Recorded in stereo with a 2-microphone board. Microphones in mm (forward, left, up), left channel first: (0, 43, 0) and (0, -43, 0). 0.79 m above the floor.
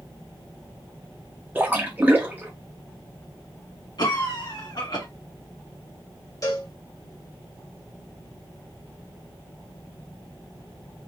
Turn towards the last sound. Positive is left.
turn(degrees=45)  # may be behind; listen again after turning